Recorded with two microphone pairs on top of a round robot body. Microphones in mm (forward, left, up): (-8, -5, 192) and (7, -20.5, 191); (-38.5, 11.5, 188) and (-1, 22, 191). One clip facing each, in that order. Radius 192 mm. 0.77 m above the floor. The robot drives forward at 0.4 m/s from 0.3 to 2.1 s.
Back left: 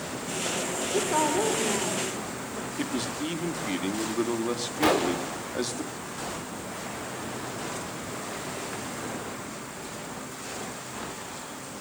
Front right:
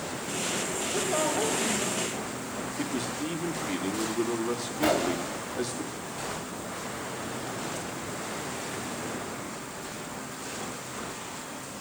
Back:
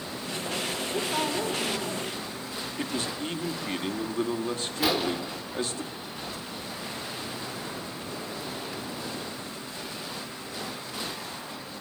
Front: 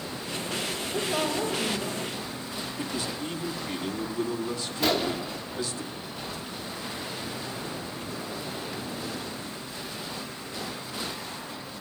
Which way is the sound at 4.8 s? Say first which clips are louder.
Back left 2 dB, front 1 dB; 110° left.